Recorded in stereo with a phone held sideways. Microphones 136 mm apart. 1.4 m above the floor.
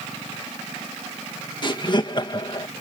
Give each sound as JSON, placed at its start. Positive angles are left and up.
{"t": 1.6, "sound": "laughter", "side_deg": 35}